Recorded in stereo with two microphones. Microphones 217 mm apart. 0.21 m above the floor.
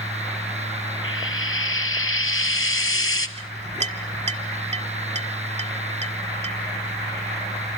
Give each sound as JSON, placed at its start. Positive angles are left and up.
{"t": 1.0, "sound": "frying", "side_deg": 75, "distance_m": 1.3}
{"t": 3.4, "sound": "a clink", "side_deg": -30, "distance_m": 1.2}